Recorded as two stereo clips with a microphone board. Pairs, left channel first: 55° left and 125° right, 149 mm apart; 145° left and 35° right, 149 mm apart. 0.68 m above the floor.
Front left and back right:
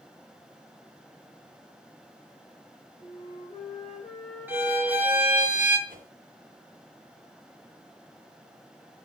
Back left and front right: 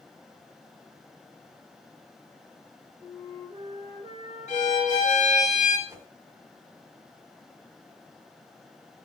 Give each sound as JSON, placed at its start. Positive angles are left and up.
{"t": 3.0, "sound": "a flute", "azimuth_deg": 20, "distance_m": 4.5}
{"t": 4.5, "sound": "a violin", "azimuth_deg": 160, "distance_m": 1.4}
{"t": 5.9, "sound": "a whoosh", "azimuth_deg": -100, "distance_m": 1.9}